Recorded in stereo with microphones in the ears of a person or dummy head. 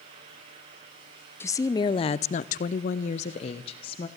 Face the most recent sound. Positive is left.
turn(degrees=30)  # may be behind; listen again after turning